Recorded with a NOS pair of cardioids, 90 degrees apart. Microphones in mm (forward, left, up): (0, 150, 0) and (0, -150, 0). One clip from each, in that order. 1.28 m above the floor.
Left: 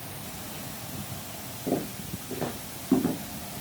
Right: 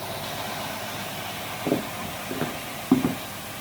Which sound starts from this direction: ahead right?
Footsteps, at 1.7 s.